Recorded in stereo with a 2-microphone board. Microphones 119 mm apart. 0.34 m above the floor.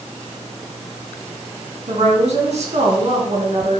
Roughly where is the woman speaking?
Right.